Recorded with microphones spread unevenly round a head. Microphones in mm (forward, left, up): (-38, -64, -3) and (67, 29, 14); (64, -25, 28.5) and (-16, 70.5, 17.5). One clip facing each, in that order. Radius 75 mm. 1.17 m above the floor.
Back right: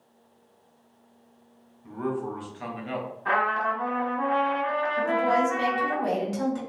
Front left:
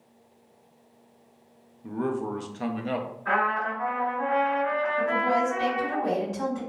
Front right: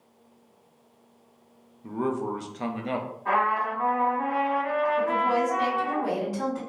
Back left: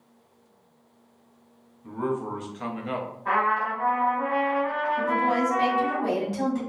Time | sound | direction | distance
1.8 | a man speaking | straight ahead | 0.5 m
3.2 | a trumpet | 120° right | 1.8 m
5.0 | a woman speaking | 165° right | 1.5 m